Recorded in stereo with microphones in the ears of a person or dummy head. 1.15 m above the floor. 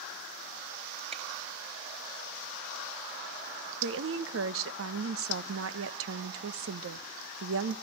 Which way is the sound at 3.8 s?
70° right (ahead or behind).